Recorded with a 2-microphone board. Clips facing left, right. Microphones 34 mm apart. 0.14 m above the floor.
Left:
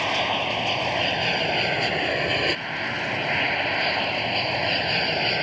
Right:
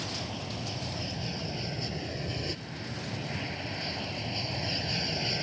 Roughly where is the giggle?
No giggle in this recording.